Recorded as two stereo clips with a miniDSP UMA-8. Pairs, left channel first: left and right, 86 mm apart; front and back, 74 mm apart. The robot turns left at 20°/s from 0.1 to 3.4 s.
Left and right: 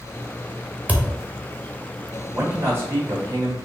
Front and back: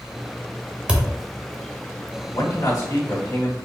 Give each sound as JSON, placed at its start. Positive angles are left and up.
{"t": 0.9, "sound": "a thud", "azimuth_deg": -125, "distance_m": 0.7}
{"t": 2.3, "sound": "a man speaking", "azimuth_deg": -20, "distance_m": 1.9}